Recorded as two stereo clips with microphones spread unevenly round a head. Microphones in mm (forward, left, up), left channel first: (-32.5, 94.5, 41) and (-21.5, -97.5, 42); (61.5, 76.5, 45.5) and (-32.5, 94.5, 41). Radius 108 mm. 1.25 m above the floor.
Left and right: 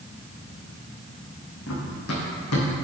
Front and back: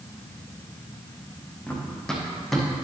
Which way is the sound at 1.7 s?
65° left.